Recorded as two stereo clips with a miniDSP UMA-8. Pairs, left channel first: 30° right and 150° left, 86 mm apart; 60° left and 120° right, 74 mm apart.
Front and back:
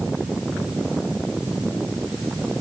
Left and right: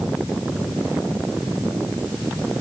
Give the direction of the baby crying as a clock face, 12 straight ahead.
No baby crying in this recording.